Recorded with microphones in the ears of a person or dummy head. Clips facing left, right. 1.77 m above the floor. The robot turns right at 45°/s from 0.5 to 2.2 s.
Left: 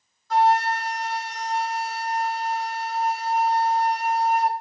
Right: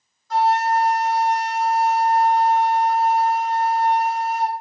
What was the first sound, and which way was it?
A flute, 55° left.